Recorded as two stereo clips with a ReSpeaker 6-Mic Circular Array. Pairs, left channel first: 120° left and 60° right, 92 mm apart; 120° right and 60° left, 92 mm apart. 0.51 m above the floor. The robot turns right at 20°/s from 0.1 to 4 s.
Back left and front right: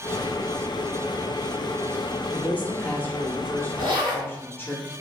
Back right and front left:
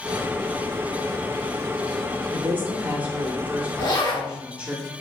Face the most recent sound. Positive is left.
turn(degrees=-70)